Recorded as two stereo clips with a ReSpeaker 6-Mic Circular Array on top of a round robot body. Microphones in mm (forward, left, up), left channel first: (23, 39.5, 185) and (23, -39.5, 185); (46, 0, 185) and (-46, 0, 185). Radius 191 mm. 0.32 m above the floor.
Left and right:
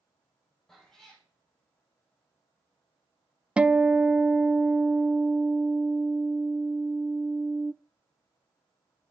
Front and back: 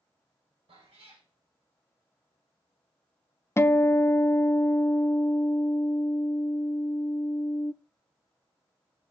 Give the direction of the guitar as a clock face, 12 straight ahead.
1 o'clock.